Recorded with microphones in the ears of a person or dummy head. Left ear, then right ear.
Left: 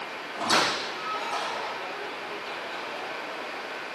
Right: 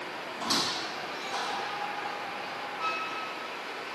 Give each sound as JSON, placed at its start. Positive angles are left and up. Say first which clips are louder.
{"t": 0.3, "sound": "a squeak", "louder": "left 6 dB", "side_deg": 35, "distance_m": 1.2}